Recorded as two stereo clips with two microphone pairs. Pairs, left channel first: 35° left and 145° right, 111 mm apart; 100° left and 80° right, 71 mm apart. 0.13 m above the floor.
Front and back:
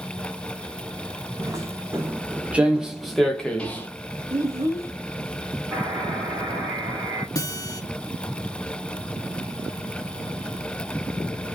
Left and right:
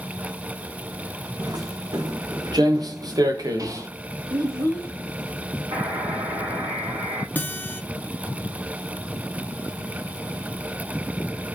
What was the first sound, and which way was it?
Footsteps, 85° right.